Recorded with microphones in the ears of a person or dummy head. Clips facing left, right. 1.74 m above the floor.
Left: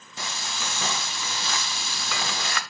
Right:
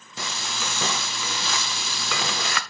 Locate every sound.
0.2 s frying: 60° right (ahead or behind), 0.6 m